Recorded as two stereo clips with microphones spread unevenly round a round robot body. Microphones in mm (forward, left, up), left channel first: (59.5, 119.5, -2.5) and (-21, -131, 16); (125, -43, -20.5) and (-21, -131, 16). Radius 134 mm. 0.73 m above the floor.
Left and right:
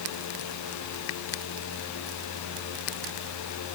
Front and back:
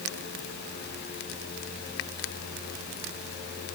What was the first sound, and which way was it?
Only background noise.